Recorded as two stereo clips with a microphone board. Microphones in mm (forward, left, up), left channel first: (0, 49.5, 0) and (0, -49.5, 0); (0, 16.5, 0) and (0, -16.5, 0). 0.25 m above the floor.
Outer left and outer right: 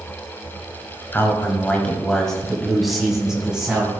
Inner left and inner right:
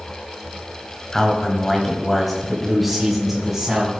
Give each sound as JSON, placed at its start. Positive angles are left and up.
{"t": 1.1, "sound": "a man speaking", "side_deg": 25, "distance_m": 1.7}